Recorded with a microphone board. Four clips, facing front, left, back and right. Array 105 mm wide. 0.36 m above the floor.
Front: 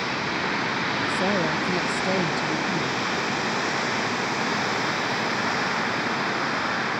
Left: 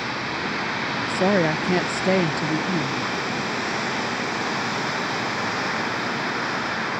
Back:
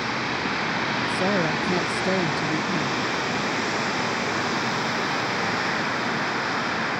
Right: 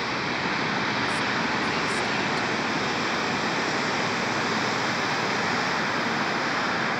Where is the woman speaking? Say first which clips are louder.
Left 6 dB, back 1 dB; 90° left.